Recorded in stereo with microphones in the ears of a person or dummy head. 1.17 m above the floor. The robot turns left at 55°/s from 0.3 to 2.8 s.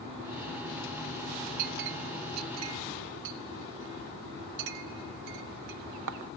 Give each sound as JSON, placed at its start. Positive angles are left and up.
{"t": 1.6, "sound": "a clink", "side_deg": -45, "distance_m": 0.6}